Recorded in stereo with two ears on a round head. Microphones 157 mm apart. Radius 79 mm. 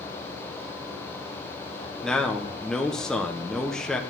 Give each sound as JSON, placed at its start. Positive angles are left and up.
{"t": 2.0, "sound": "a man speaking", "side_deg": 5, "distance_m": 1.2}